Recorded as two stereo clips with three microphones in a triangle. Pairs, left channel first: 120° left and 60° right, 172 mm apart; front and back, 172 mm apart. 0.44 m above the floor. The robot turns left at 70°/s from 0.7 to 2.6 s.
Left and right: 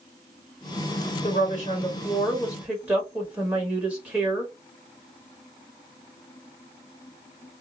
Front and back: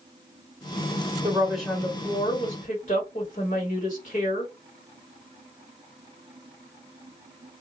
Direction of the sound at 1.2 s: 115° left.